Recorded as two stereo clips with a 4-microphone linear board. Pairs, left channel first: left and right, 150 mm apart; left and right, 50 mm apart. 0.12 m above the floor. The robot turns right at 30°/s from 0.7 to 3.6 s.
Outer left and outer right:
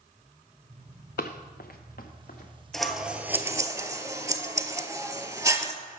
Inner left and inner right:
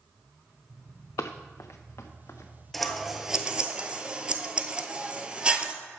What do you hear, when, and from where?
1.2 s running footsteps: 80° left, 0.6 m
2.7 s scissors: 5° left (ahead or behind), 0.5 m; by 5.7 s 20° right (ahead or behind), 0.5 m